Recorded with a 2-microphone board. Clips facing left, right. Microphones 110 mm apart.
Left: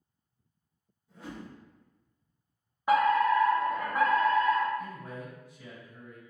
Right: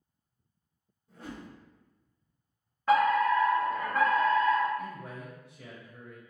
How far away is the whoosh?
About 2.0 m.